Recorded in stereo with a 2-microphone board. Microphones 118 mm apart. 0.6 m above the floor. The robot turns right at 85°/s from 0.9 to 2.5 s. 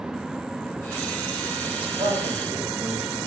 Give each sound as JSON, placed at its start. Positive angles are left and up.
{"t": 1.7, "sound": "a man speaking", "azimuth_deg": -140, "distance_m": 3.5}